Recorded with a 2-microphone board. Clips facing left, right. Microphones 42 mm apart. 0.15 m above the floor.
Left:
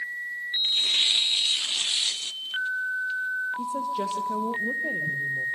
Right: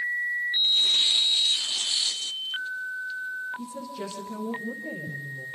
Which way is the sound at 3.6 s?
50° left (ahead or behind).